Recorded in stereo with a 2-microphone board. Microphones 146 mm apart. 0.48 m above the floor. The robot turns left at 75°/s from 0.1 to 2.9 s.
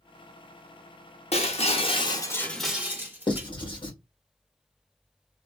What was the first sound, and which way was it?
Breaking glass, 100° left.